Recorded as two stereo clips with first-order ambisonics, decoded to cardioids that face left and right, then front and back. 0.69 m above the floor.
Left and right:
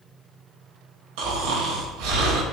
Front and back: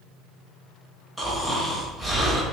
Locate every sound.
1.2 s snoring: 100° right, 0.8 m